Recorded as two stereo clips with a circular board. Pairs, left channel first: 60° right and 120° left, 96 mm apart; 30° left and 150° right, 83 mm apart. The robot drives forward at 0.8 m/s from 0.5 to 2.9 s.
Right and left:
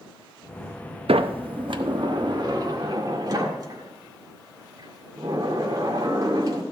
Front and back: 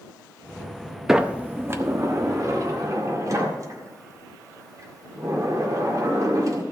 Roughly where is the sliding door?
Behind left.